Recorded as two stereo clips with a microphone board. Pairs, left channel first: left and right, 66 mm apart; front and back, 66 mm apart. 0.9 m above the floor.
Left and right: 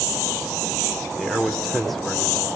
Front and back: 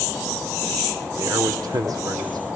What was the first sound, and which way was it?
A man speaking, 175° left.